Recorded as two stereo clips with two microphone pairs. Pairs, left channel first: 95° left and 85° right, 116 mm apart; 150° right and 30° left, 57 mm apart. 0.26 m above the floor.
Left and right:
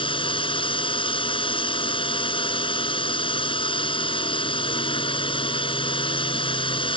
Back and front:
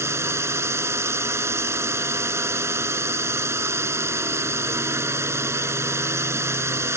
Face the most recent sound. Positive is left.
turn(degrees=60)